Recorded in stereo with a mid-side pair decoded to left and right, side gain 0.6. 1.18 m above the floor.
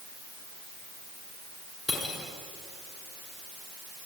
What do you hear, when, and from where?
1.9 s cutlery clinking: 15° left, 7.5 m